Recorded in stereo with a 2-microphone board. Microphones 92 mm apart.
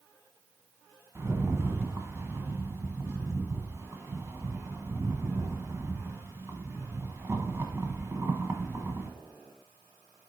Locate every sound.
1.1 s a rattle: 30° right (ahead or behind), 0.9 m